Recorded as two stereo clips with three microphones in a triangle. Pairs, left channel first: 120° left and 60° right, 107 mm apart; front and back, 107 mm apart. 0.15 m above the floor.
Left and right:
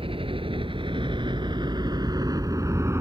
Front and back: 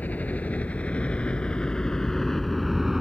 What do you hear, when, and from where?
0.0 s a helicopter: 75° right; by 3.0 s 95° right